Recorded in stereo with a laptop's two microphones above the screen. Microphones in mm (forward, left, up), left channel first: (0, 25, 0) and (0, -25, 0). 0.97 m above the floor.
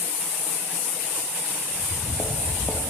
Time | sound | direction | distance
1.7 | footsteps | 20° left (ahead or behind) | 1.5 m